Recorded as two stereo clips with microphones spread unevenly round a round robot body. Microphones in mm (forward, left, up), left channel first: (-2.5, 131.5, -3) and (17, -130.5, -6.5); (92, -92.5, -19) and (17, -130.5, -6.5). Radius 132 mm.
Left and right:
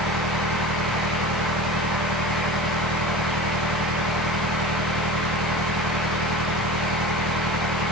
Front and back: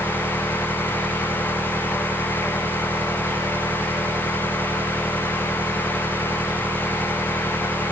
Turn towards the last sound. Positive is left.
turn(degrees=-85)